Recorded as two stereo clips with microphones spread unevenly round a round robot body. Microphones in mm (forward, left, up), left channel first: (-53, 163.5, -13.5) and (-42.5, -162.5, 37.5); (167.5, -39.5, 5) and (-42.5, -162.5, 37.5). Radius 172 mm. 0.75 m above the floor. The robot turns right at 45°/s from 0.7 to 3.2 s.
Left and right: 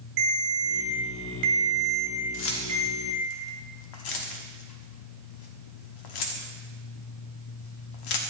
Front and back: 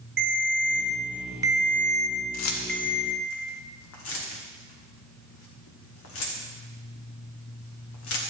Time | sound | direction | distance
0.2 | a ringtone | 105° right | 2.5 m
2.3 | keys jangling | 35° left | 1.1 m